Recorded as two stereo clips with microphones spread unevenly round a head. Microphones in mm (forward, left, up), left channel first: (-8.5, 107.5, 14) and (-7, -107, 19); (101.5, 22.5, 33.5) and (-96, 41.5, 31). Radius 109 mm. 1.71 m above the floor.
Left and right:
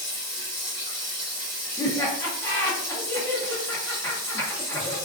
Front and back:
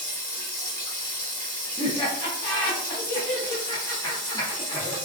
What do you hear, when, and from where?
0.0 s running water: 65° right, 1.6 m
1.8 s laughter: 30° left, 0.5 m